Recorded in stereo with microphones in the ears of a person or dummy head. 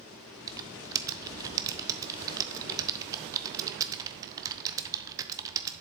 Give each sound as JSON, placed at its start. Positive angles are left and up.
{"t": 0.5, "sound": "typing on a keyboard", "side_deg": -20, "distance_m": 0.7}